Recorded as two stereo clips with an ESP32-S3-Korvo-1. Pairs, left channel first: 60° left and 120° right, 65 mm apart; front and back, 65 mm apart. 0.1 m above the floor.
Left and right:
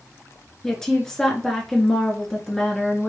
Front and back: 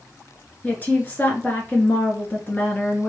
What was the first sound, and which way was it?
A woman speaking, 5° right.